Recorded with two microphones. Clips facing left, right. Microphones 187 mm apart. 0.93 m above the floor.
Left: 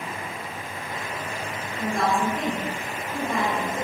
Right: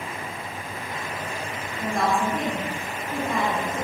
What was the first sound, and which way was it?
A woman speaking, centre (ahead or behind).